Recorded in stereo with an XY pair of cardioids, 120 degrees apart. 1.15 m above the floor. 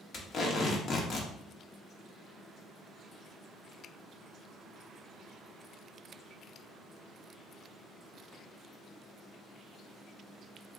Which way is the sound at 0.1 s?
50° left.